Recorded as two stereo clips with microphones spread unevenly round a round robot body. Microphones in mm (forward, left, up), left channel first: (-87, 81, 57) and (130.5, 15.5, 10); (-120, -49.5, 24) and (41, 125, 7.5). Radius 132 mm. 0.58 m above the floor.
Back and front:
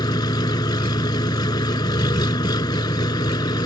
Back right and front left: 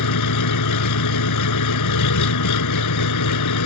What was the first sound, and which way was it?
An engine running, 120° right.